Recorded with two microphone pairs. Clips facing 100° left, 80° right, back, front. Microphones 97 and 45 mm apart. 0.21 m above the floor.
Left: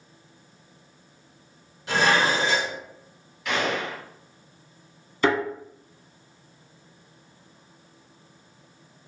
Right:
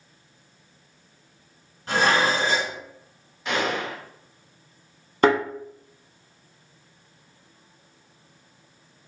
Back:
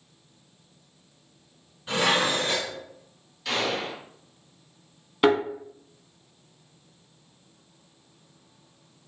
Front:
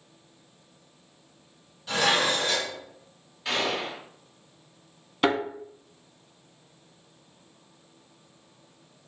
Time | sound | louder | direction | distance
1.9 | dishes clattering | even, even | 120° right | 1.7 m
3.5 | a gunshot | right 1 dB, even | 50° right | 1.3 m
5.2 | a thud | right 4 dB, back 4 dB | 100° right | 0.7 m